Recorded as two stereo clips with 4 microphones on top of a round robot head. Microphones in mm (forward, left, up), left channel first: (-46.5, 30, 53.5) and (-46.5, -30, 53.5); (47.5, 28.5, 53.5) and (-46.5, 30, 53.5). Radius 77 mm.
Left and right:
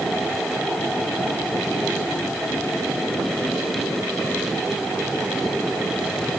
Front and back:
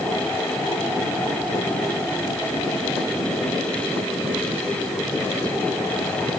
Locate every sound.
Only background noise.